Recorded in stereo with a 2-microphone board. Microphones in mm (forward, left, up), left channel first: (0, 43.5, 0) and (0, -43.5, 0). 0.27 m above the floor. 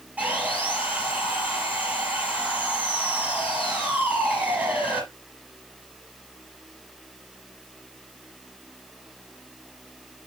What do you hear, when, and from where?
0.2 s sawing: 15° right (ahead or behind), 5 m